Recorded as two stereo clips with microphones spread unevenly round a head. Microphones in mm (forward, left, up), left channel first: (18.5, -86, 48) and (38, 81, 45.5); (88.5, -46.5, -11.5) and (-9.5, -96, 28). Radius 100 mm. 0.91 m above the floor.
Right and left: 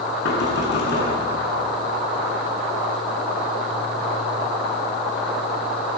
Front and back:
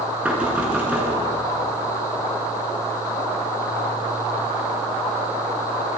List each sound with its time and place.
0.2 s knocking: 75° right, 9 m